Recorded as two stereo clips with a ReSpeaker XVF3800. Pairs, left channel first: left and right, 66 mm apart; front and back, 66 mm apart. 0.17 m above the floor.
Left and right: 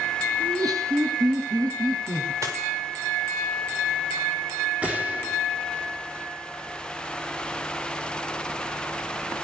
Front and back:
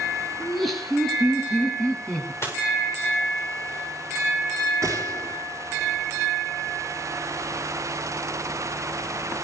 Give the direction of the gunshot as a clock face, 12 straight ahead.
5 o'clock.